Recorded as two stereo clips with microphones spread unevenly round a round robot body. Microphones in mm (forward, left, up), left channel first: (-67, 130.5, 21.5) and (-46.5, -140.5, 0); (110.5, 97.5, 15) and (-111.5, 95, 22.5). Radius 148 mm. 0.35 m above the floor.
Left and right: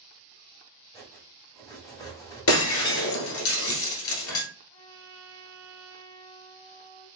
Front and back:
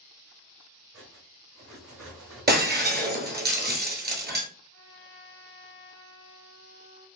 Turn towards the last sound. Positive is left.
turn(degrees=-80)